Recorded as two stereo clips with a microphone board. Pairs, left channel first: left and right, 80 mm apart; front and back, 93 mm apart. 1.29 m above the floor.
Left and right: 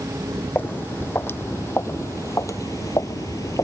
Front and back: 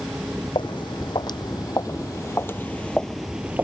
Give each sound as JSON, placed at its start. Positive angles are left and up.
{"t": 0.6, "sound": "footsteps", "azimuth_deg": 25}